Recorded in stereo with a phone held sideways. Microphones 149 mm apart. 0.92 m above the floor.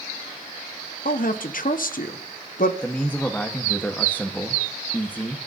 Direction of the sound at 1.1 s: 65° left (ahead or behind).